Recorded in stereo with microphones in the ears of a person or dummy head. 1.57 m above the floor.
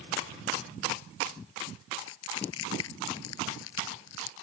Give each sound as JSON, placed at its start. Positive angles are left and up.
{"t": 2.1, "sound": "crushing", "side_deg": 80}